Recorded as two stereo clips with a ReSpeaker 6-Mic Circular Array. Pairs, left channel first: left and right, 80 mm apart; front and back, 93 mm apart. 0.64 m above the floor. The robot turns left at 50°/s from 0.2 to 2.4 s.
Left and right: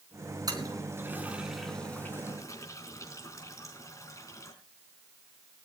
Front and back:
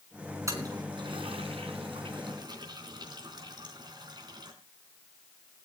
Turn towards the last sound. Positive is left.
turn(degrees=140)